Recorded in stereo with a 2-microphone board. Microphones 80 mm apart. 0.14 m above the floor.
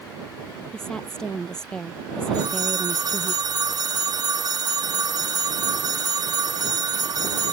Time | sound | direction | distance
0.7 | a woman speaking | 10° left (ahead or behind) | ?
2.3 | a phone ringing | 55° right (ahead or behind) | ?